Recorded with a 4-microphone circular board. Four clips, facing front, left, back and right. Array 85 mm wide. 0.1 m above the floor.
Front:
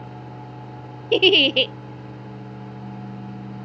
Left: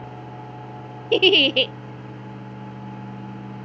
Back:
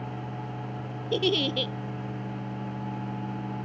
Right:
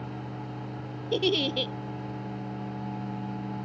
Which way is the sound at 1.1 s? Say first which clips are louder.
Left 9 dB, front 9 dB; 45° left.